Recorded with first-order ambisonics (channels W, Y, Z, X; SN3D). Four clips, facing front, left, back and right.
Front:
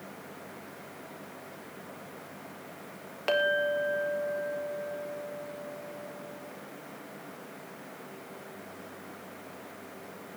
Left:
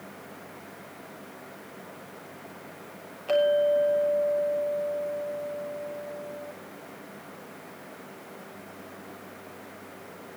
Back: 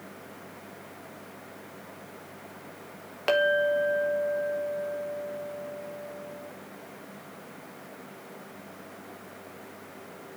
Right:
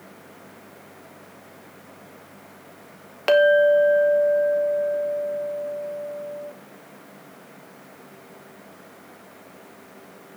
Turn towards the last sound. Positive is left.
turn(degrees=-100)